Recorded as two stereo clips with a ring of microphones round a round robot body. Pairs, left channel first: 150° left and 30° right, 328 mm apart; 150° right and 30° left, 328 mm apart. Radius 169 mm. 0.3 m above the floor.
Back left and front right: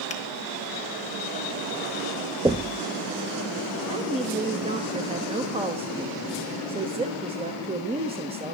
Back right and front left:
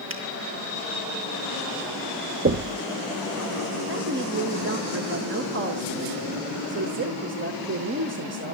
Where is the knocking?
40° left, 0.7 m.